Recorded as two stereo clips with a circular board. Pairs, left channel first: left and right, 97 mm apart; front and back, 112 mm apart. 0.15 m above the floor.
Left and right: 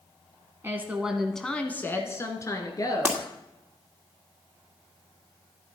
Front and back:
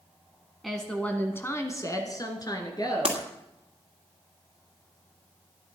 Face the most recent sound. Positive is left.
turn(degrees=-160)